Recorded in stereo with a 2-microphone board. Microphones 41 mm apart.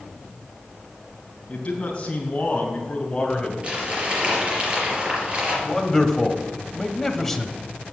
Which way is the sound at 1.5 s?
30° left (ahead or behind).